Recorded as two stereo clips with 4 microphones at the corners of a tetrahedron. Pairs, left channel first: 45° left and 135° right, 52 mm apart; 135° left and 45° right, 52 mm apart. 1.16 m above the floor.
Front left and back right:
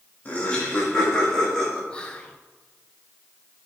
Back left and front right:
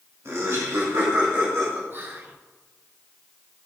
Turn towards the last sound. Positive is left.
turn(degrees=-20)